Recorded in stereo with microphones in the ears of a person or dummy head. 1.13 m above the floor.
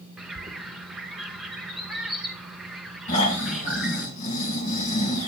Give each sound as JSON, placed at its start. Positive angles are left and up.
{"t": 0.2, "sound": "a bird", "side_deg": -5, "distance_m": 0.8}
{"t": 3.1, "sound": "snoring", "side_deg": 30, "distance_m": 2.5}